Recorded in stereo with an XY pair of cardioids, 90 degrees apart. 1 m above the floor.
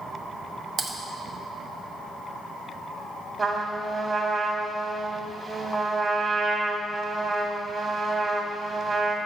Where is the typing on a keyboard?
50° right, 1.0 m.